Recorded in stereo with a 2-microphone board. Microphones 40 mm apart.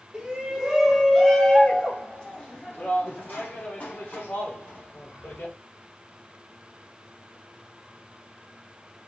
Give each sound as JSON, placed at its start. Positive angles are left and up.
{"t": 0.1, "sound": "a shout", "side_deg": -20, "distance_m": 1.4}